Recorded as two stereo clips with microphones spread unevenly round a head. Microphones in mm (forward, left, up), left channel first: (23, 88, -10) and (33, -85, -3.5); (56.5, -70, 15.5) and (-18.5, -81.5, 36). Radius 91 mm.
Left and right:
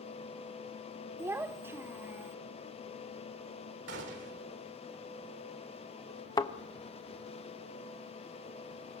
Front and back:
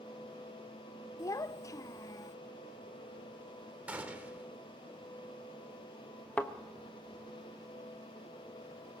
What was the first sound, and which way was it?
A child speaking, 25° right.